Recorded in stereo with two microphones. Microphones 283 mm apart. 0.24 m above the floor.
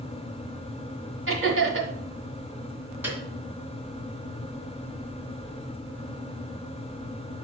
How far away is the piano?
About 1.5 m.